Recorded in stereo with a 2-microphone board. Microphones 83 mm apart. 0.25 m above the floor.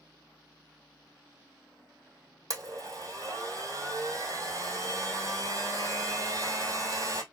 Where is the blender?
45° right (ahead or behind), 1.7 m.